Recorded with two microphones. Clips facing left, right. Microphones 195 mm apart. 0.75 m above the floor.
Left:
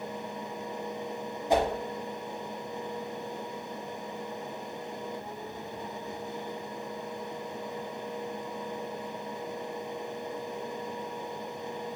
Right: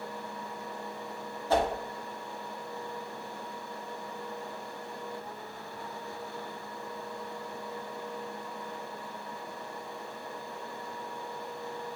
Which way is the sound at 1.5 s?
15° left (ahead or behind).